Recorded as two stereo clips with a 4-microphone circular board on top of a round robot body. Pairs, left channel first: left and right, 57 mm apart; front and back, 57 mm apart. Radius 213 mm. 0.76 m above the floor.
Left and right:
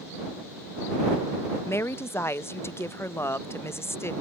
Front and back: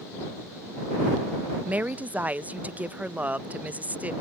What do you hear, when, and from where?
1.6 s a woman speaking: 120° left